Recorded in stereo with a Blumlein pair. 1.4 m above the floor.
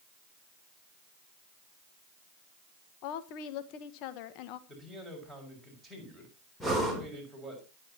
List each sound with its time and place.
3.0 s a woman speaking: 40° left, 1.4 m
4.7 s a man speaking: straight ahead, 6.5 m
6.6 s breathing: 5° left, 3.5 m